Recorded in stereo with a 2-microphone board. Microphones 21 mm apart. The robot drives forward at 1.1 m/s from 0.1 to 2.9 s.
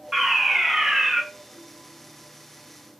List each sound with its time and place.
0.1 s a fire alarm: 20° right (ahead or behind), 1.7 m